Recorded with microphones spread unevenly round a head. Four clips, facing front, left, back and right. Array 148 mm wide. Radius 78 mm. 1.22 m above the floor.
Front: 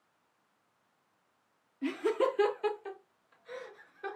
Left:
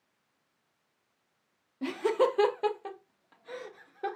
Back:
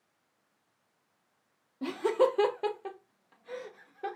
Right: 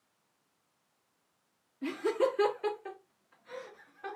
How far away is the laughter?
About 0.9 m.